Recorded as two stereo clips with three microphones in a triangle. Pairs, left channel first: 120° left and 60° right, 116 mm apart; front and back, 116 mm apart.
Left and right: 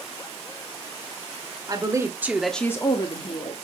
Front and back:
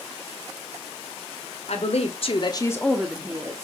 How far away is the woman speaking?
About 1.6 m.